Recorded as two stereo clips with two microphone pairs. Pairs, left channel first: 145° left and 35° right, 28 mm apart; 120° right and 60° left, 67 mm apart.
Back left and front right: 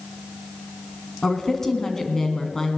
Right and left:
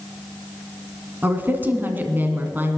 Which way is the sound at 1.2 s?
85° left.